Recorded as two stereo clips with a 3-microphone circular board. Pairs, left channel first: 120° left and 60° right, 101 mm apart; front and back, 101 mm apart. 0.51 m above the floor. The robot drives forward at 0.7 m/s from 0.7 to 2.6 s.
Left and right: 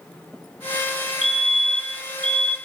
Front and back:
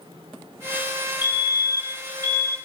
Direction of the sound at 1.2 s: 145° right.